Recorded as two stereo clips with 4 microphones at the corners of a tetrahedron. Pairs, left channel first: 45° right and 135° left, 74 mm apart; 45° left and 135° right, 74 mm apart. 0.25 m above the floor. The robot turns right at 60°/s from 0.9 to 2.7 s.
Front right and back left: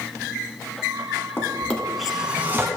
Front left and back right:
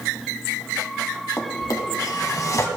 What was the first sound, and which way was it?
A drawer, 5° left.